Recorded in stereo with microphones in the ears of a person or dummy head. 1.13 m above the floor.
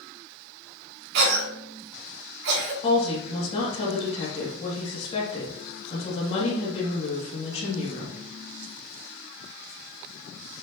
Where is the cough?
70° right (ahead or behind), 2.5 m.